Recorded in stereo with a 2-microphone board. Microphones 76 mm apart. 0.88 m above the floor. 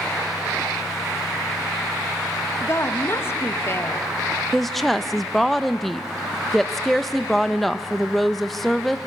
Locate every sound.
2.6 s a woman speaking: 35° left (ahead or behind), 1.3 m
4.5 s a woman speaking: 5° left (ahead or behind), 0.6 m